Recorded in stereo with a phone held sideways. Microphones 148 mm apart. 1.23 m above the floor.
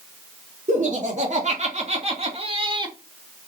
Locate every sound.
0.7 s laughter: 55° right (ahead or behind), 3.5 m; by 3.0 s 30° right (ahead or behind), 1.7 m